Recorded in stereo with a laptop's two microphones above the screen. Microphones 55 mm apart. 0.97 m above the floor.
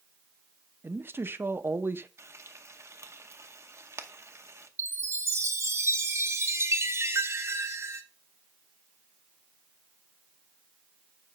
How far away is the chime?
About 0.6 m.